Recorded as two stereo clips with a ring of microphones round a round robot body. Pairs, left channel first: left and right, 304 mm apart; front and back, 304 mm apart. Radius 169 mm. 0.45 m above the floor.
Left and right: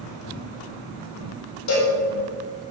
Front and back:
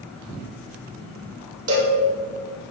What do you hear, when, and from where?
1.7 s a cowbell: 135° left, 4 m